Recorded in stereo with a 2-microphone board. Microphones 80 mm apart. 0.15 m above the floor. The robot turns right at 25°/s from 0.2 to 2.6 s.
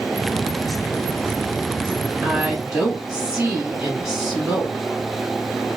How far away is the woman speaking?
About 1.3 m.